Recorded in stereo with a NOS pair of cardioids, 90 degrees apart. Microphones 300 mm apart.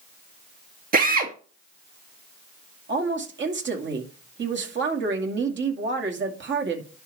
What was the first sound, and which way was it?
A drill, 30° right.